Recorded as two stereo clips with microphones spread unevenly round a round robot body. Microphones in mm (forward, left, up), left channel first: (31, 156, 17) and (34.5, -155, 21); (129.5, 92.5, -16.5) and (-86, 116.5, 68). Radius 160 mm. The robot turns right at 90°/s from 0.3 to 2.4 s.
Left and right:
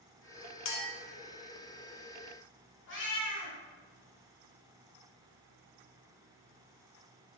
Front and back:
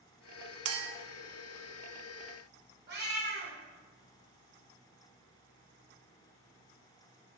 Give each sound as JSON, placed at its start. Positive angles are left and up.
{"t": 0.7, "sound": "a clink", "azimuth_deg": 140, "distance_m": 0.5}
{"t": 2.9, "sound": "a cat meowing", "azimuth_deg": 145, "distance_m": 1.0}